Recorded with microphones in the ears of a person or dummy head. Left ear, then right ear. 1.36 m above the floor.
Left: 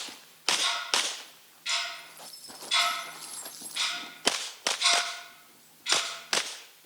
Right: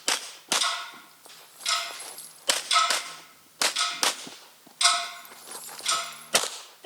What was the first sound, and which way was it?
Ticking, 50° right (ahead or behind).